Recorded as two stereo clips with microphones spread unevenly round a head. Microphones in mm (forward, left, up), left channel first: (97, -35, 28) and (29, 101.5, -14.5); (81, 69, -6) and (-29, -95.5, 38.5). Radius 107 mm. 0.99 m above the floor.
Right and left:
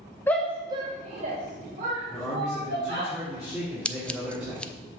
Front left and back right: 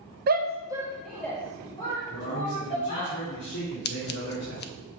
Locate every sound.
0.3 s a shout: 155° right, 0.5 m; by 3.1 s 115° left, 2 m
2.1 s a man speaking: 35° left, 2.5 m
3.9 s scissors: 15° left, 0.5 m